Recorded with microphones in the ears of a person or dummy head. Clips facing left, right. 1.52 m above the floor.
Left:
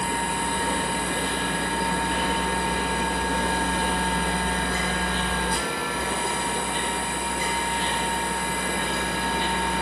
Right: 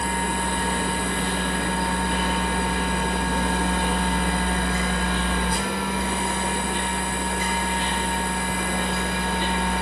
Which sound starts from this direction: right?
A machine running, at 0.0 s.